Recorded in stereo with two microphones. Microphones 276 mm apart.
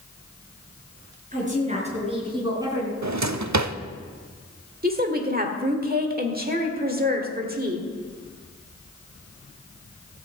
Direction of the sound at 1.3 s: 30° right (ahead or behind).